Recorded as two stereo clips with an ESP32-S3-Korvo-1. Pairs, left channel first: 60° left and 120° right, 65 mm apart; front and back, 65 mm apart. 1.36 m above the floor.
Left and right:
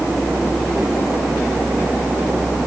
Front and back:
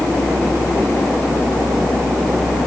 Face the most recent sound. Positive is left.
No sound to turn to.